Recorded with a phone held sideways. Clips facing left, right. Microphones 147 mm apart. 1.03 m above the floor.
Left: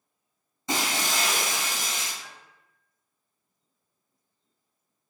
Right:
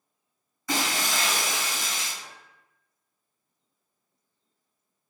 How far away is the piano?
About 1.7 m.